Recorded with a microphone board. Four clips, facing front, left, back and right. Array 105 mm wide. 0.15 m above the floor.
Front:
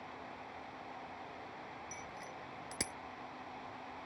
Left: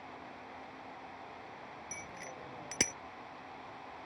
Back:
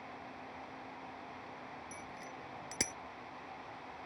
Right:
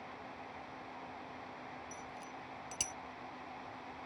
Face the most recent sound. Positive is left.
turn(degrees=105)